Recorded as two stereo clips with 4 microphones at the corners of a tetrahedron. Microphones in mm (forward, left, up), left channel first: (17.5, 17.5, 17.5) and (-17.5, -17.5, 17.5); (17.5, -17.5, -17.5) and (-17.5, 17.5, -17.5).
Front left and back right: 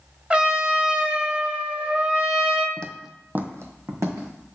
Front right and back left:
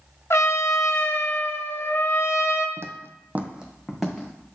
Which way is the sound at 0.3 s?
70° right.